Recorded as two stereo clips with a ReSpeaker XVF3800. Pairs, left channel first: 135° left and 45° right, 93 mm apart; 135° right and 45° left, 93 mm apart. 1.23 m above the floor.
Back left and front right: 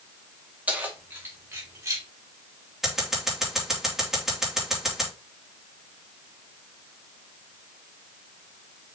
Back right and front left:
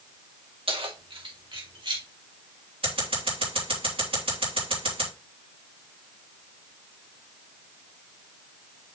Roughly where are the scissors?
Ahead left.